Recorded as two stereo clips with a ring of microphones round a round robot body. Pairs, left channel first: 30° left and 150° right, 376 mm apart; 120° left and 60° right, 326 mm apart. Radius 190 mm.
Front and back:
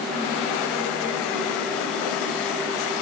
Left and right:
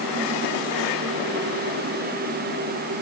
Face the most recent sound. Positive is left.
No sound to turn to.